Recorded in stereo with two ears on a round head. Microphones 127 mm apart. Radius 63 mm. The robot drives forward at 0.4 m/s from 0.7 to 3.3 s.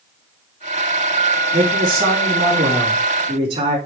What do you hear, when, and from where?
1.5 s a man speaking: 40° right (ahead or behind), 4.5 m; by 3.8 s 45° right (ahead or behind), 4 m